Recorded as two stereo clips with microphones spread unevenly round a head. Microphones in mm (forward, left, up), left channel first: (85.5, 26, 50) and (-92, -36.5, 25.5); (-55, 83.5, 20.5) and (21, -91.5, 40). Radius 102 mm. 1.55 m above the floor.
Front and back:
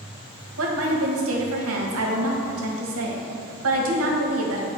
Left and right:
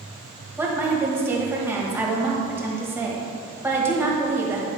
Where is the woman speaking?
145° right, 1.4 m.